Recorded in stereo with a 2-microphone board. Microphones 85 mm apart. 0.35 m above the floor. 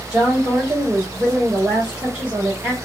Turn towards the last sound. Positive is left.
turn(degrees=-10)  # may be behind; listen again after turning